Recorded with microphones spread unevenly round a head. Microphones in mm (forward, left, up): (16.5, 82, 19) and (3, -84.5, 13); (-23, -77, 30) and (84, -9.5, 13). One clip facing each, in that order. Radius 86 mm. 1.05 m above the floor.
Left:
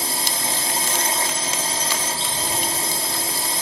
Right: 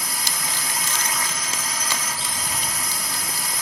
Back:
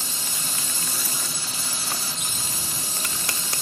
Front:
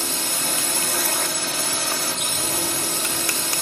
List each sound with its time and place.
0.0 s a drone: 25° left